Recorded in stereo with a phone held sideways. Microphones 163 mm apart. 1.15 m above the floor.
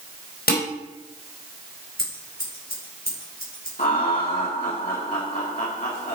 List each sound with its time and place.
0.5 s dishes clattering: 75° left (ahead or behind), 4 m
2.0 s scissors: 70° left (ahead or behind), 4.5 m
3.8 s laughter: 50° left (ahead or behind), 2.5 m